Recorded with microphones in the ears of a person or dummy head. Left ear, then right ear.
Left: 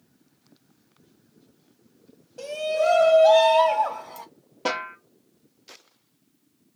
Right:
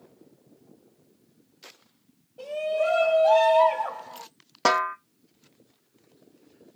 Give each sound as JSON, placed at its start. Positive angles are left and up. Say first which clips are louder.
{"t": 2.4, "sound": "a shout", "louder": "left 2 dB", "side_deg": 60, "distance_m": 0.7}
{"t": 4.7, "sound": "a snare drum", "louder": "right 6 dB", "side_deg": -50, "distance_m": 0.5}